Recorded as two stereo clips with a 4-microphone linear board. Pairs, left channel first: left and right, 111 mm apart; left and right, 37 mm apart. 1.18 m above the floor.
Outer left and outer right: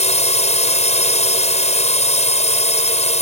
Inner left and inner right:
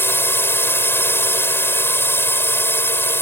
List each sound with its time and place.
0.0 s a drone: 80° left